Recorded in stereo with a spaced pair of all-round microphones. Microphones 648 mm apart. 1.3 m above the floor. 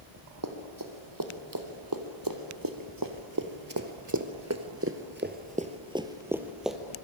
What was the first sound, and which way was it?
Running footsteps, 30° right (ahead or behind).